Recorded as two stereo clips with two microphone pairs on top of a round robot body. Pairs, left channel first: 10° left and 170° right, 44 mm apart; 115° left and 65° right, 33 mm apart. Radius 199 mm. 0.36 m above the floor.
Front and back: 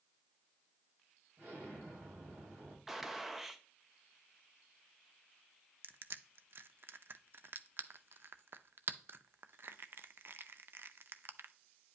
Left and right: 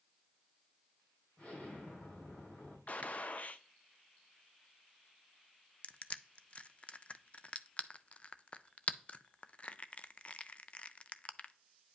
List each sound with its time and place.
1.4 s an explosion: 135° left, 4.5 m
2.9 s a gunshot: 95° left, 0.8 m
5.8 s crushing: 150° left, 0.5 m